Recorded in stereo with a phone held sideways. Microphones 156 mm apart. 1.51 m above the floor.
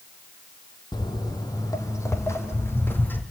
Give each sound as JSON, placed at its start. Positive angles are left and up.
{"t": 0.9, "sound": "footsteps", "side_deg": 25, "distance_m": 2.0}